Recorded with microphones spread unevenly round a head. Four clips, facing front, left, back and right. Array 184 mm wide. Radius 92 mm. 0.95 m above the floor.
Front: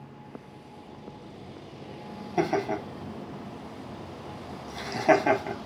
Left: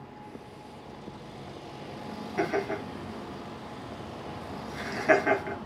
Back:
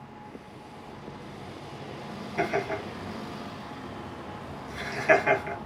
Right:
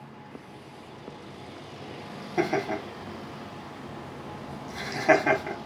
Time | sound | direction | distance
2.4 | laughter | 20° right | 1.5 m